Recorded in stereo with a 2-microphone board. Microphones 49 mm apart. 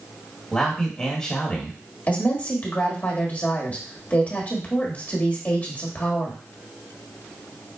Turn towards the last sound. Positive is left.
turn(degrees=35)  # may be behind; listen again after turning